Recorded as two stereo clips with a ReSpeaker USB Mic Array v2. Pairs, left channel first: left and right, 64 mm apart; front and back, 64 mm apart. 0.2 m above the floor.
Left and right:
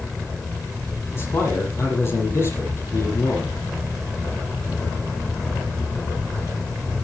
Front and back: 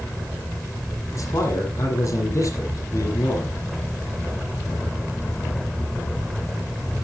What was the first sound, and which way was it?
A man speaking, 40° left.